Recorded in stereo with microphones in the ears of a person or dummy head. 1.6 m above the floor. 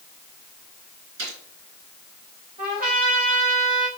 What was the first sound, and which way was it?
A gunshot, 85° right.